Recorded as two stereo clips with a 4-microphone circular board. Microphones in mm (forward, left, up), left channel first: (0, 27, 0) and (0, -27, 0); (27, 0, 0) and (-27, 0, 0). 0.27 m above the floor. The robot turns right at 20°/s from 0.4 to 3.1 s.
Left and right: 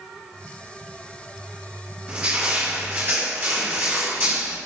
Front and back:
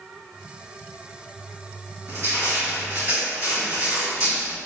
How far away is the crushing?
About 1.9 m.